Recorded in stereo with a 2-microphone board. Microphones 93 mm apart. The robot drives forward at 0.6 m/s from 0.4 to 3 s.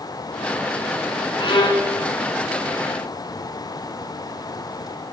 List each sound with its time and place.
1.4 s a violin: 60° left (ahead or behind), 1.0 m; by 1.9 s 65° left (ahead or behind), 1.0 m